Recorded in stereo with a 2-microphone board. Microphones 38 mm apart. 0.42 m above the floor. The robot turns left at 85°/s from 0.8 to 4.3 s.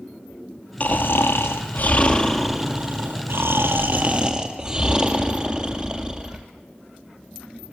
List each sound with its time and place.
0.8 s snoring: 145° left, 2.5 m; by 6.4 s 155° right, 2.5 m